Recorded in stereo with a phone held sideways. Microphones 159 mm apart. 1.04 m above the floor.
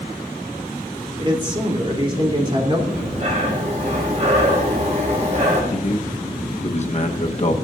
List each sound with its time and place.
1.2 s a man speaking: 30° right (ahead or behind), 3 m
2.9 s breathing: 45° right (ahead or behind), 5 m
5.7 s a man speaking: 45° left (ahead or behind), 1.0 m